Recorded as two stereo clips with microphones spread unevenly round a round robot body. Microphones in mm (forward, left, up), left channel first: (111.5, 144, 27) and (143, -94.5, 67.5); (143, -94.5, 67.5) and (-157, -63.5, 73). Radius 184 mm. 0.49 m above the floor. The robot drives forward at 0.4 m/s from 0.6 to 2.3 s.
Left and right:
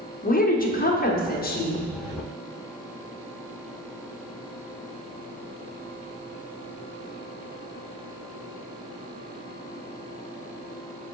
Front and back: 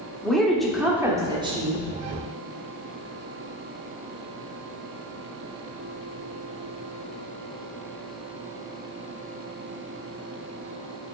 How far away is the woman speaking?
About 1.3 m.